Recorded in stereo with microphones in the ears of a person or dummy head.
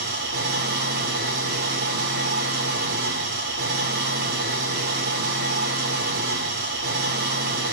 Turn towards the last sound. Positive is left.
turn(degrees=-55)  # may be behind; listen again after turning